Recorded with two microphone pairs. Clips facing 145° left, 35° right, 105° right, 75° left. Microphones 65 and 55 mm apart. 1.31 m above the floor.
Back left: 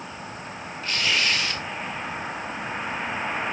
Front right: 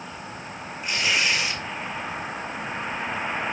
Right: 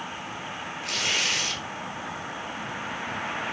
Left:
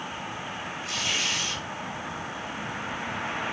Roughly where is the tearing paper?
Right.